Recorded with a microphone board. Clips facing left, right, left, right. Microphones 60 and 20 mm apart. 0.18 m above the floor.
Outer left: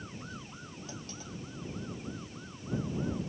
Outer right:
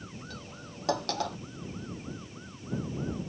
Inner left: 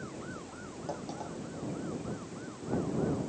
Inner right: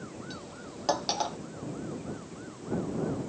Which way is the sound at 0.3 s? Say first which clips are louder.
Outer right 1 dB, inner right 1 dB; 80° right.